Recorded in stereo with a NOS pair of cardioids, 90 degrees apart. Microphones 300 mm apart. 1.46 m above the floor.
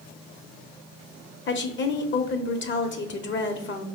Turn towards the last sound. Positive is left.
turn(degrees=45)